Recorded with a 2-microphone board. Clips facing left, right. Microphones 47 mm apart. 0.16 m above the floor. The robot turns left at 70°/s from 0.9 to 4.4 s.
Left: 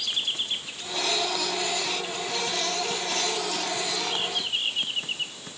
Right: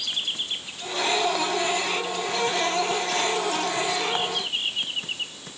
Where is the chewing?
No chewing in this recording.